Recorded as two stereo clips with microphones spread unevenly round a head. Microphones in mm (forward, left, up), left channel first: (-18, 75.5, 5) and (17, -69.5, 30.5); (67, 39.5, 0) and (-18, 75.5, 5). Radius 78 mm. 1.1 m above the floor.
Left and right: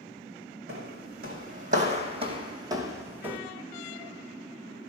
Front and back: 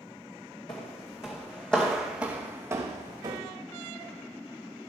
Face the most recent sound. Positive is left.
turn(degrees=-150)